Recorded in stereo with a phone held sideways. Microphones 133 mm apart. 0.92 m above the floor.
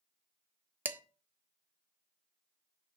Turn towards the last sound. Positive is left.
turn(degrees=-15)  # may be behind; listen again after turning